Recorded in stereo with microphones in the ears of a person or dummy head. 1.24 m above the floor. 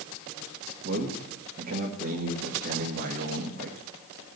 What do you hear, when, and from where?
0.8 s a man speaking: 50° right (ahead or behind), 1.8 m